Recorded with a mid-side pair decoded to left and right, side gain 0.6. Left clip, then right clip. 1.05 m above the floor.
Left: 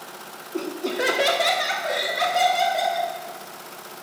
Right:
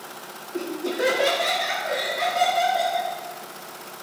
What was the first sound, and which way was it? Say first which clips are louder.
Laughter: left 1 dB; 15° left.